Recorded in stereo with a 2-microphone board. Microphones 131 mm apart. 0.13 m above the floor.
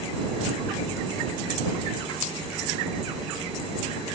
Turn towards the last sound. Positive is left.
No sound to turn to.